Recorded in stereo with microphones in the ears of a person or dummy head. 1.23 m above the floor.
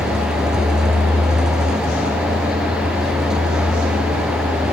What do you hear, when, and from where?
0.0 s a vehicle: 5° right (ahead or behind)